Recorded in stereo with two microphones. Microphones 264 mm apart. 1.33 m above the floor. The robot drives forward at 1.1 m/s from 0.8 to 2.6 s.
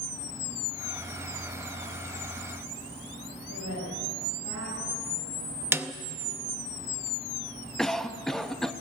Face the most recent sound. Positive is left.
turn(degrees=0)  # may be behind; listen again after turning